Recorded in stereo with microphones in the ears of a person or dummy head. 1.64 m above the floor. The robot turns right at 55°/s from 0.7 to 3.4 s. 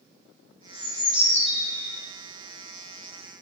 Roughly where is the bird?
Behind.